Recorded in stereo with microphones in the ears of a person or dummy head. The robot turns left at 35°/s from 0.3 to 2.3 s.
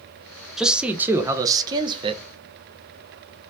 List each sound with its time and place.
0.6 s a man speaking: 5° right, 0.6 m; by 2.2 s 65° right, 0.6 m